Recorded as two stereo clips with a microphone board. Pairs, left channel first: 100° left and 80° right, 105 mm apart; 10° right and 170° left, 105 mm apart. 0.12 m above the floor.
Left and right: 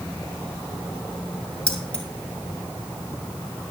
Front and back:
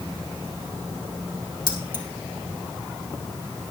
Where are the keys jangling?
25° left, 2 m.